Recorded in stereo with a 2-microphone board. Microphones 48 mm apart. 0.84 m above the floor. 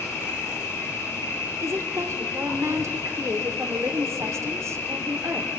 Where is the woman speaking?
75° right (ahead or behind), 2.5 m.